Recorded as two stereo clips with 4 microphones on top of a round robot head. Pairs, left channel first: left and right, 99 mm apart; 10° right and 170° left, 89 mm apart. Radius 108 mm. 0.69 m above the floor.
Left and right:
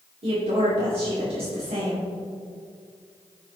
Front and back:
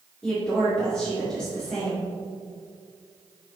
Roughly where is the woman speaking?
Right.